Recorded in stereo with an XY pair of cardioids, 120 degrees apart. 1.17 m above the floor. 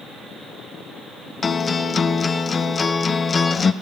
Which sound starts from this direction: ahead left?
A guitar, at 1.4 s.